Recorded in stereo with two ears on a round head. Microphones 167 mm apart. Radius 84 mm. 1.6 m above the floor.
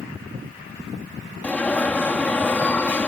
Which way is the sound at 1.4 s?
10° left (ahead or behind).